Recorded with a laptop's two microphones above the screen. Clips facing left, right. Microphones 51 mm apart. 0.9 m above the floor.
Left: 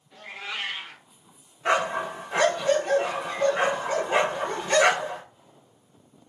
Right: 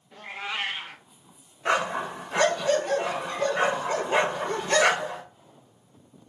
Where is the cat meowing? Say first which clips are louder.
Right 2 dB; 20° right (ahead or behind), 0.6 m.